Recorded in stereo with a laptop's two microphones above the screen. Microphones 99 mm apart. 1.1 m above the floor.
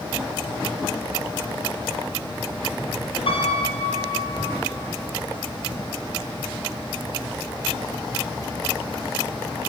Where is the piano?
70° left (ahead or behind), 3 m.